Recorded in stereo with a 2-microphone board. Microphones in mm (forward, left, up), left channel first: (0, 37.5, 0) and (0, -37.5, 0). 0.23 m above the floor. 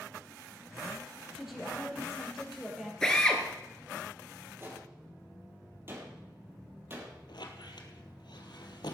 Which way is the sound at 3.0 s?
5° left (ahead or behind).